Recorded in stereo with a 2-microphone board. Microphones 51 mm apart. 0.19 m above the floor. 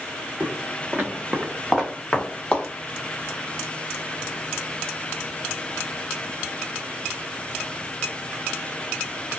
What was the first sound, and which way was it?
Footsteps, 45° right (ahead or behind).